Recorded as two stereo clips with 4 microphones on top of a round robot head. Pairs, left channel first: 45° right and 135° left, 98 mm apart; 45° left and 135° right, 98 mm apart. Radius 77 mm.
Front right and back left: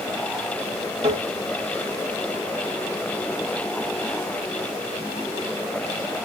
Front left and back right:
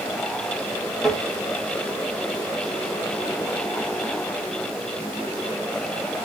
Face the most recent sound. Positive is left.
turn(degrees=135)